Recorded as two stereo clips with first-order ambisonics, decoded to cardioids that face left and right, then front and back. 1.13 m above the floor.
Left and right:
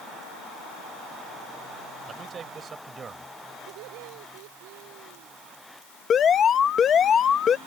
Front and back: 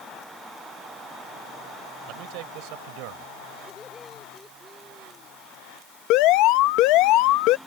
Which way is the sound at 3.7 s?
75° right.